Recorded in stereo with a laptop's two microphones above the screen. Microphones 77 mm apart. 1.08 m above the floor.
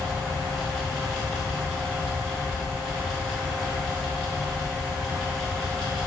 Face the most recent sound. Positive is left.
turn(degrees=5)  # may be behind; listen again after turning